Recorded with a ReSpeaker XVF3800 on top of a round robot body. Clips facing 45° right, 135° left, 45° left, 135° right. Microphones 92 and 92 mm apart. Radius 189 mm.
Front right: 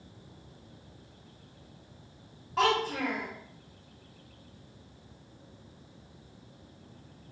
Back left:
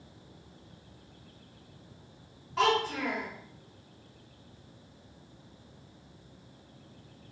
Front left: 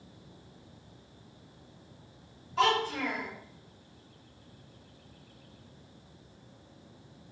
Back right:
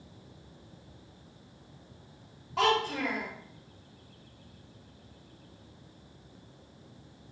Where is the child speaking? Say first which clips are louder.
Even, even; 105° right, 1.0 m.